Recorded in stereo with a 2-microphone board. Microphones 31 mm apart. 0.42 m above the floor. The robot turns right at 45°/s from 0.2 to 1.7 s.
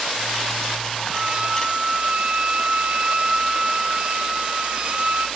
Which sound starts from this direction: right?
A violin, at 1.1 s.